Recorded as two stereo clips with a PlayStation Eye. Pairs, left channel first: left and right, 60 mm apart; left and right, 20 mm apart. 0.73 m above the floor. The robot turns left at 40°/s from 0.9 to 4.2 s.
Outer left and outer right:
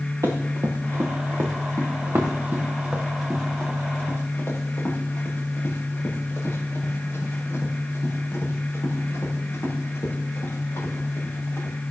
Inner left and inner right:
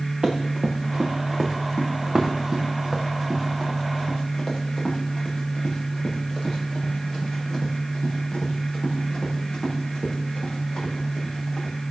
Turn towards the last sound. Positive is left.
turn(degrees=50)  # may be behind; listen again after turning